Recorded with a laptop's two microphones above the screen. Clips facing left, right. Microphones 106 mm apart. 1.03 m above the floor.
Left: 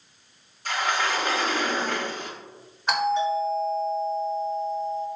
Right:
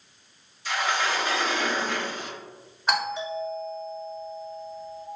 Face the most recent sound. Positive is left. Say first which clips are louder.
# left 5 dB
turn(degrees=-5)  # may be behind; listen again after turning